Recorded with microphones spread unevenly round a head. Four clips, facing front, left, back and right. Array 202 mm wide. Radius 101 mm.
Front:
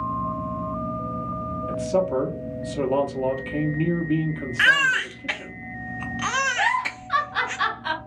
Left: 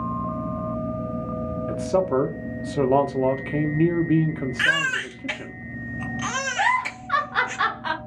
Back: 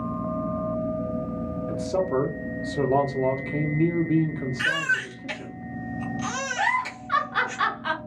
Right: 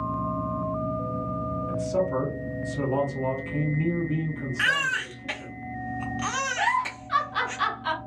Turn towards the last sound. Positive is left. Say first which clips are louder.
# left 4 dB, front 1 dB
turn(degrees=120)